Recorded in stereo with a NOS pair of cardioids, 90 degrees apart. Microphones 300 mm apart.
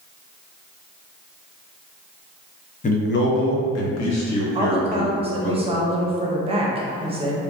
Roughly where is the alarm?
I don't hear an alarm.